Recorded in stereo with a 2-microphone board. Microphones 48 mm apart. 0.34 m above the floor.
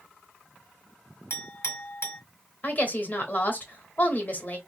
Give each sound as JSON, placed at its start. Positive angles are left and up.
{"t": 1.3, "sound": "a clink", "side_deg": 65, "distance_m": 1.2}
{"t": 2.6, "sound": "a woman speaking", "side_deg": 40, "distance_m": 1.0}